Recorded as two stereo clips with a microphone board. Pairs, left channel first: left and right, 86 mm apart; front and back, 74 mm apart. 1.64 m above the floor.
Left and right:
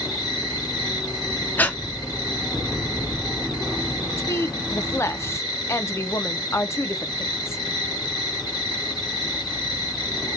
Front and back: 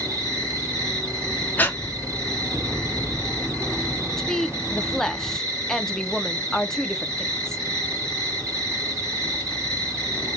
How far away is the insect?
About 3 m.